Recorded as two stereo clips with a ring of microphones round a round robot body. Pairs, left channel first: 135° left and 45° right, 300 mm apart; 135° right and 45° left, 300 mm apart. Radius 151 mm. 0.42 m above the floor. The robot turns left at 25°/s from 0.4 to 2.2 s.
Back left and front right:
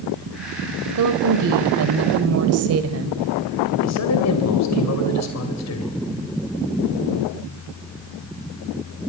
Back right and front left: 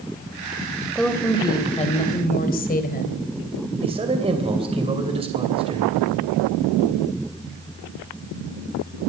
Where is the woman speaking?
45° right, 2 m; by 3.2 s 75° right, 2 m.